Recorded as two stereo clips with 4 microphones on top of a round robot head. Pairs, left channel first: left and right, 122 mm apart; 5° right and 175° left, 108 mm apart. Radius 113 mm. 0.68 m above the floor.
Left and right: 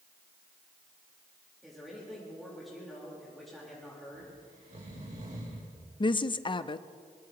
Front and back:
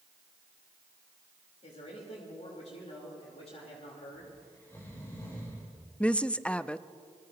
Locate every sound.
1.6 s a man speaking: straight ahead, 3.5 m
4.2 s snoring: 70° right, 3.5 m
6.0 s a woman speaking: 75° left, 0.6 m